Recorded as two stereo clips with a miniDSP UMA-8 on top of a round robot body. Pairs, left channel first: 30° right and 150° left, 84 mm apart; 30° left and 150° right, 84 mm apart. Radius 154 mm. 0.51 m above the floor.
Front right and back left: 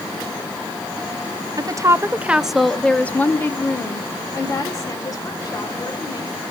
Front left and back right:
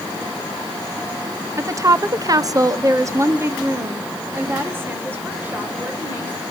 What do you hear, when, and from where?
1.6 s a woman speaking: 170° left, 0.9 m; by 6.4 s 75° right, 3 m